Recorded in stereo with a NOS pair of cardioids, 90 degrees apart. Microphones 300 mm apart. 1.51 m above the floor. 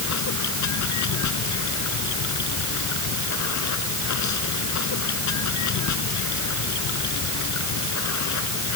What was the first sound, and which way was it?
Running water, 65° left.